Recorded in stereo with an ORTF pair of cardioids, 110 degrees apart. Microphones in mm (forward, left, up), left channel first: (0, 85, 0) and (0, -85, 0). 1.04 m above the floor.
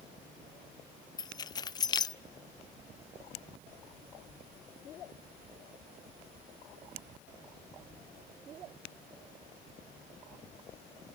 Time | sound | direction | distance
1.2 | keys jangling | 25° left | 0.6 m